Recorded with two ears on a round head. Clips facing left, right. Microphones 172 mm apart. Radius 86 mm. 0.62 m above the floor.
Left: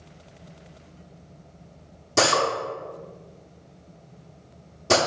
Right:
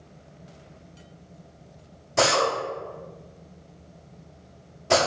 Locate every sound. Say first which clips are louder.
2.2 s a drill: even; 55° left (ahead or behind), 0.8 m